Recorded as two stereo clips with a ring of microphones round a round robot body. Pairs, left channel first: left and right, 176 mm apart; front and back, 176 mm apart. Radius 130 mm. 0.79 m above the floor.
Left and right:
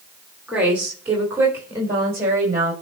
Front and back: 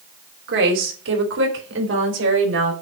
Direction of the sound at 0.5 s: 175° right.